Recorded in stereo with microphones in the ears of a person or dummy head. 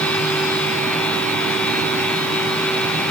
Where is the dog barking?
I don't hear a dog barking.